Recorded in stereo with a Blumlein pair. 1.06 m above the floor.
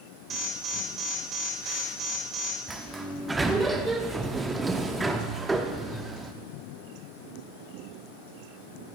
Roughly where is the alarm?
Ahead right.